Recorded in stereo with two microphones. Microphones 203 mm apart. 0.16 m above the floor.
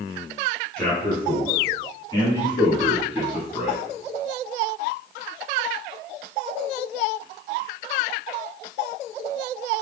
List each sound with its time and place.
0.8 s a man speaking: 5° left (ahead or behind), 1.7 m; by 3.8 s 30° left (ahead or behind), 2 m